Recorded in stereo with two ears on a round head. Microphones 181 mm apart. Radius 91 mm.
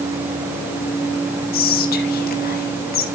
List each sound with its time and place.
1.5 s whispering: 50° left (ahead or behind), 1.4 m